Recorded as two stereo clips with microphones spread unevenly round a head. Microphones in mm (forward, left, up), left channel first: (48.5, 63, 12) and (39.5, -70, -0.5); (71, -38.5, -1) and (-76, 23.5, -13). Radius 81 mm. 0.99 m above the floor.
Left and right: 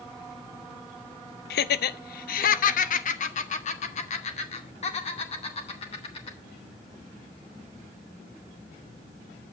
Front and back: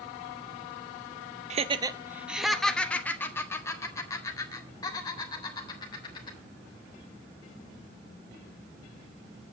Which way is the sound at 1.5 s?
110° left.